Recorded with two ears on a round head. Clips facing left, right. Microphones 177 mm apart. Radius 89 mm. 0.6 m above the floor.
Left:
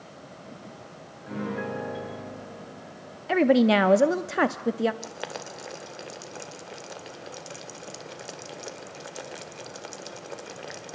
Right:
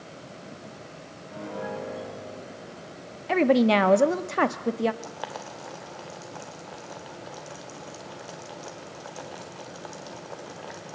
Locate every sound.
1.3 s a piano: 90° left, 5 m
3.3 s a woman speaking: 5° left (ahead or behind), 0.7 m
5.0 s boiling: 30° left (ahead or behind), 2 m